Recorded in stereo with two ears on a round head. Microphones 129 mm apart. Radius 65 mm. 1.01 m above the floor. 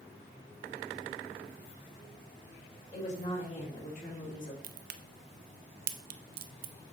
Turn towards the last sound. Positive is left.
turn(degrees=-65)  # may be behind; listen again after turning